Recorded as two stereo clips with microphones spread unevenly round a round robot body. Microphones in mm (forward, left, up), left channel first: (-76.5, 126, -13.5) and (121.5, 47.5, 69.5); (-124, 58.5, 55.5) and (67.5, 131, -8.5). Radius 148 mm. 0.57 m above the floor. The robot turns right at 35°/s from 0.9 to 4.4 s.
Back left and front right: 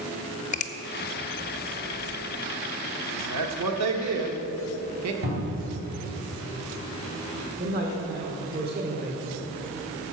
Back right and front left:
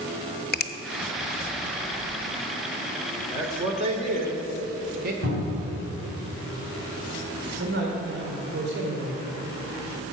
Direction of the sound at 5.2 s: 30° right.